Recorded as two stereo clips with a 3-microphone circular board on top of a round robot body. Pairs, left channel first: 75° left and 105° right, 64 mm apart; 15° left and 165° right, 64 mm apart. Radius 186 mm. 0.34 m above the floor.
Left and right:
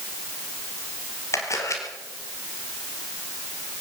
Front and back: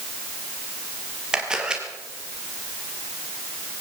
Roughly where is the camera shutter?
Behind left.